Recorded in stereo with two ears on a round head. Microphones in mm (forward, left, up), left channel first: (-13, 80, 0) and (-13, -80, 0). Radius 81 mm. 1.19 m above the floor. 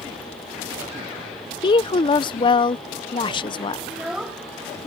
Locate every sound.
1.6 s a woman speaking: 30° left (ahead or behind)
3.9 s a child speaking: 5° right (ahead or behind)